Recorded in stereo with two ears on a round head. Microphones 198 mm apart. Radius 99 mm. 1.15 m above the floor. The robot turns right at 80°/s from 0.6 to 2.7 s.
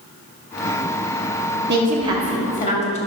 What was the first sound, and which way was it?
A woman speaking, 50° right.